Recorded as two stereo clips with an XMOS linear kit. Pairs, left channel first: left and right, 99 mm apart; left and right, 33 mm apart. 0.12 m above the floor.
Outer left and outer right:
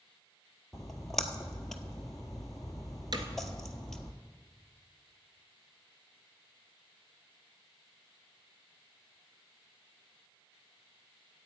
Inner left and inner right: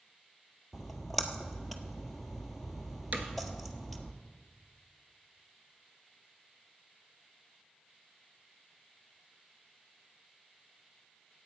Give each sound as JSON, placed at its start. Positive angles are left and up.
{"t": 0.7, "sound": "a splash", "side_deg": 5, "distance_m": 0.8}
{"t": 3.1, "sound": "hammering", "side_deg": -50, "distance_m": 1.2}